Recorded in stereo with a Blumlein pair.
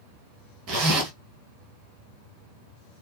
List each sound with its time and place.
0.7 s a zipper: 40° right, 1.5 m